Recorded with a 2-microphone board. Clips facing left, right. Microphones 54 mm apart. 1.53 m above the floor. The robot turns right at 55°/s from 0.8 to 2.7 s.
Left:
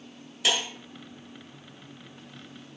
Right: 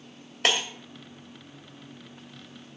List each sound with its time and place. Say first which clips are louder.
0.4 s breaking glass: right 2 dB; 50° right (ahead or behind), 1.7 m